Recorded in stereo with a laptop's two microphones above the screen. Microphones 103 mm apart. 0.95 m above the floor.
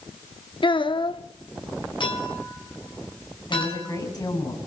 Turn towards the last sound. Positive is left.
turn(degrees=40)  # may be behind; listen again after turning